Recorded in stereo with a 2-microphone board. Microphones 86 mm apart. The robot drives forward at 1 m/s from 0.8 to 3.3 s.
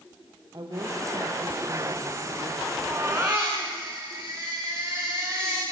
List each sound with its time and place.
0.5 s a woman speaking: 55° right (ahead or behind), 3 m; by 2.7 s 65° right (ahead or behind), 3 m
2.8 s a baby crying: 25° right (ahead or behind), 5.5 m